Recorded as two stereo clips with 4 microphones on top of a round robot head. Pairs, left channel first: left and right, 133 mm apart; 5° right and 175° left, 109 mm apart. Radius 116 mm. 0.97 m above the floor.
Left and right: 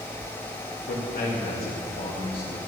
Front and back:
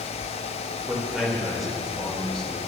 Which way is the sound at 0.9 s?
95° left.